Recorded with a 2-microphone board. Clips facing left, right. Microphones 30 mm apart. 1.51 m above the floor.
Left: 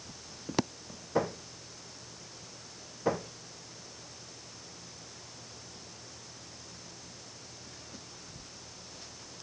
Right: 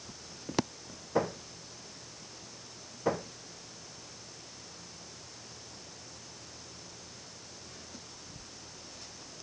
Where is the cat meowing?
I don't hear a cat meowing.